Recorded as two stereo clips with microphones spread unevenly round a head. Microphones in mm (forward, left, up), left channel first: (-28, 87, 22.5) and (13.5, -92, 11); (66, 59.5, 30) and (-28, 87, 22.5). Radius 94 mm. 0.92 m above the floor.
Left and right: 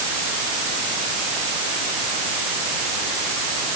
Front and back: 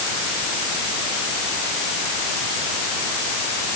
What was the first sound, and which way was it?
Only background noise.